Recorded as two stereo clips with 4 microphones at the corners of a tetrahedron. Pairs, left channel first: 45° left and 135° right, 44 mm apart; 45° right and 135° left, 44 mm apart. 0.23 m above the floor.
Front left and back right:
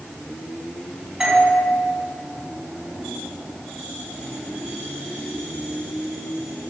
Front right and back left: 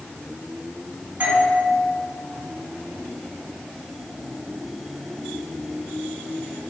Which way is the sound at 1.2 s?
155° left.